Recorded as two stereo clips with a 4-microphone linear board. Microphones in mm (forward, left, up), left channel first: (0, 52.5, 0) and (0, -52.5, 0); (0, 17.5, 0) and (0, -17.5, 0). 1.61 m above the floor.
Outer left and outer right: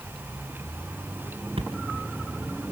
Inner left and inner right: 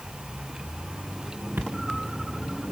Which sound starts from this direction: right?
A thud, at 1.6 s.